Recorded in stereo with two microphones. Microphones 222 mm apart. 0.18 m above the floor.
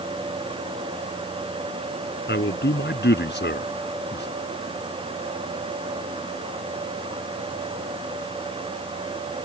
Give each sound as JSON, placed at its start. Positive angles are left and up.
{"t": 2.3, "sound": "a man speaking", "side_deg": 55}